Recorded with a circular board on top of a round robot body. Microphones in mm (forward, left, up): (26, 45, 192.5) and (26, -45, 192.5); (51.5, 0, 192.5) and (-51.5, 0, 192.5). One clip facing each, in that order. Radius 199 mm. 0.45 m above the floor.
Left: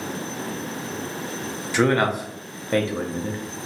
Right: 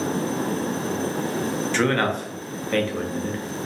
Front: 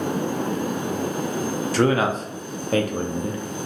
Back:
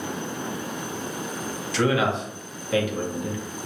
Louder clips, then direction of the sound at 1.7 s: Left 4 dB, front 2 dB; 15° left.